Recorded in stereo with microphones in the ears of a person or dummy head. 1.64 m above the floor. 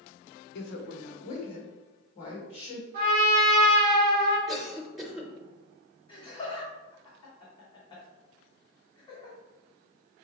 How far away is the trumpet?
About 1.1 m.